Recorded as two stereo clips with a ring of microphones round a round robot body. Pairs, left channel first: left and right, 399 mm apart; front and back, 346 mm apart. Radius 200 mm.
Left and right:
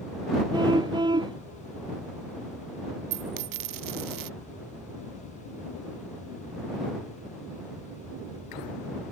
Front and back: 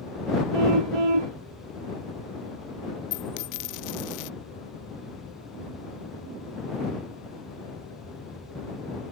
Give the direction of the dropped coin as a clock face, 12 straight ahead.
2 o'clock.